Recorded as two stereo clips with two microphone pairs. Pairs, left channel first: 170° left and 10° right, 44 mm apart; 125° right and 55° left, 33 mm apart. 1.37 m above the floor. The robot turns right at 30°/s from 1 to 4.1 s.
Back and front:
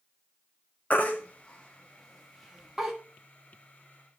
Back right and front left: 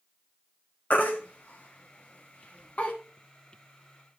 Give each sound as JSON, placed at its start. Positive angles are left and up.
{"t": 0.9, "sound": "a baby crying", "azimuth_deg": -145, "distance_m": 1.3}